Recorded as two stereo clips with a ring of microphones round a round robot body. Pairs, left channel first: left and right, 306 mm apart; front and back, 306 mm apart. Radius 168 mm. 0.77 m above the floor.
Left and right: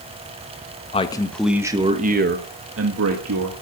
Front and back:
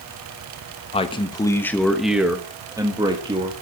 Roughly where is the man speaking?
Ahead left.